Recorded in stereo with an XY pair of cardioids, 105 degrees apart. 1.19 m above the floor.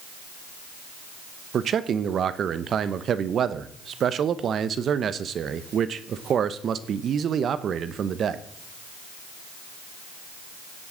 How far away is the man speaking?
About 0.8 m.